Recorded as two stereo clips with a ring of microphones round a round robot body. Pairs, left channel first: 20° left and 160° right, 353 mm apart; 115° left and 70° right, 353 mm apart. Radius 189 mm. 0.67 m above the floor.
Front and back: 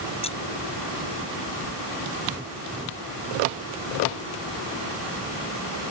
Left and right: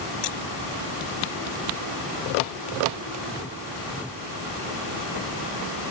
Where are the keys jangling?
100° left.